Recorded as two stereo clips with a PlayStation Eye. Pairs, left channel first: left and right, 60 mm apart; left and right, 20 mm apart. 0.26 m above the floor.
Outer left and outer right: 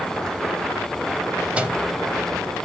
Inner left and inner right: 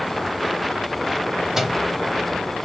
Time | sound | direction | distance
1.6 | a microwave | 20° right (ahead or behind) | 0.8 m